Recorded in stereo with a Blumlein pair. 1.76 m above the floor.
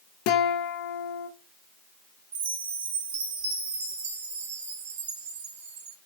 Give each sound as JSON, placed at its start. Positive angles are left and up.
{"t": 0.3, "sound": "a guitar", "azimuth_deg": 40, "distance_m": 0.7}
{"t": 2.3, "sound": "a chime", "azimuth_deg": -60, "distance_m": 1.0}